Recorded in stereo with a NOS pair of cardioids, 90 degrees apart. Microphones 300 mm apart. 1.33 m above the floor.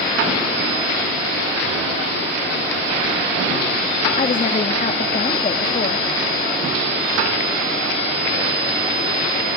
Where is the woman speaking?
30° left, 1.9 m.